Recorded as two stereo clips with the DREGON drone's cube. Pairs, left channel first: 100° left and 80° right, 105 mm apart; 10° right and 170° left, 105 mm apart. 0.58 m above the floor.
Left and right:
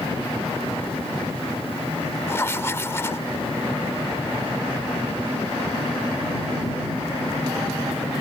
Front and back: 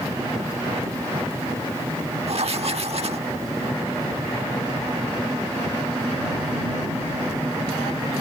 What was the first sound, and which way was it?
Writing, 165° left.